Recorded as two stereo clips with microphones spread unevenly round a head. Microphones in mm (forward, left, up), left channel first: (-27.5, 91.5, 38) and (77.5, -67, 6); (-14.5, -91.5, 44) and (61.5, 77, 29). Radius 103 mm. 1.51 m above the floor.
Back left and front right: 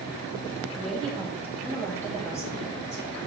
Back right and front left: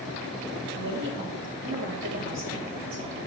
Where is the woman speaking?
30° left, 1.6 m; by 3.2 s 45° left, 4 m.